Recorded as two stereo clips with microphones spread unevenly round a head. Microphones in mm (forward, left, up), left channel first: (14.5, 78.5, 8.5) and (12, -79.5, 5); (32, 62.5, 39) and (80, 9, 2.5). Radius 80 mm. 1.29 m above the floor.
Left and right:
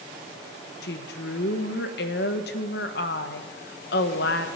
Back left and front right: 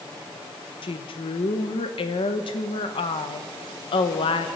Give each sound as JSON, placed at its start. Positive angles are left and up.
{"t": 0.8, "sound": "a woman speaking", "azimuth_deg": 120, "distance_m": 1.2}